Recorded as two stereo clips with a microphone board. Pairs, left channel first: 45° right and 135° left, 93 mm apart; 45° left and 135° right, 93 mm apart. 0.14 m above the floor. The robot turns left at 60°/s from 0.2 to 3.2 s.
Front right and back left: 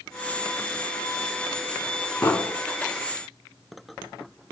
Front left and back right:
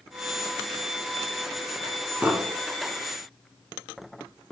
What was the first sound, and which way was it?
An explosion, 85° right.